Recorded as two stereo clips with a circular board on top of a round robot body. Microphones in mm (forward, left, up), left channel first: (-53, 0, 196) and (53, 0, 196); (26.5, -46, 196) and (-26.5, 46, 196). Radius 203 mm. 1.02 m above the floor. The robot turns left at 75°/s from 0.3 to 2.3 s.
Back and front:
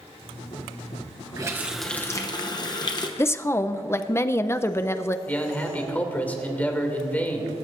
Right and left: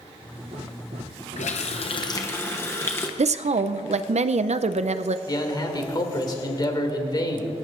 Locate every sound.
1.4 s a running tap: 60° right, 0.9 m; by 3.1 s 130° right, 0.9 m
3.2 s a woman speaking: 115° left, 0.6 m
5.3 s a man speaking: 105° right, 2.5 m